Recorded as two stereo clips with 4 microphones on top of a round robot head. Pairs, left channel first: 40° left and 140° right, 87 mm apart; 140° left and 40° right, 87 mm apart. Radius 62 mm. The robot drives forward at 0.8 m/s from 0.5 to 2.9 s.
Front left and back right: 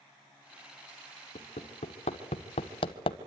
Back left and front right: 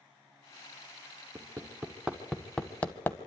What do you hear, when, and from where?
1.4 s hammering: 30° left, 1.9 m; by 3.2 s 70° left, 1.0 m